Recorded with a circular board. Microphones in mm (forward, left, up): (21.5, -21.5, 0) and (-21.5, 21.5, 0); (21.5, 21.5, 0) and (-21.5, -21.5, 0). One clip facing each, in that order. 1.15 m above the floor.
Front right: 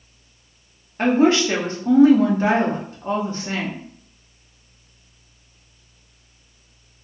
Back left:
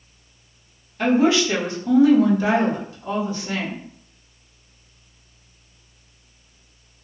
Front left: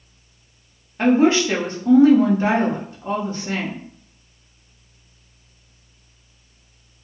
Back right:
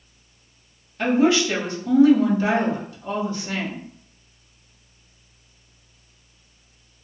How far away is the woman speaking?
About 0.9 m.